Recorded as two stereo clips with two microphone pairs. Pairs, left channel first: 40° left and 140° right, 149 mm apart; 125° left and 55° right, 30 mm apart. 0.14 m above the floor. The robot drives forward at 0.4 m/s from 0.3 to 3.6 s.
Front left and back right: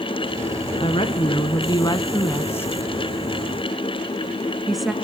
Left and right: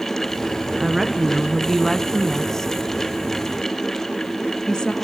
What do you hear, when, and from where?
0.8 s a woman speaking: 25° left, 1.3 m; by 4.9 s 135° left, 1.2 m